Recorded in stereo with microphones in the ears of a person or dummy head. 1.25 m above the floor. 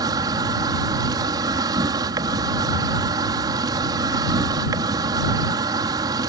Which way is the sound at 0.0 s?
20° right (ahead or behind).